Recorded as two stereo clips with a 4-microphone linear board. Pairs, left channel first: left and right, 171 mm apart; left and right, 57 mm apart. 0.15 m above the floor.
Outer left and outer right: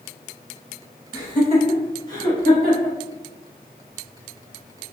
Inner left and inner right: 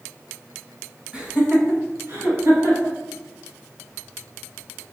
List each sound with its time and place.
1.1 s laughter: 20° right (ahead or behind), 1.3 m; by 3.0 s 65° right (ahead or behind), 2.5 m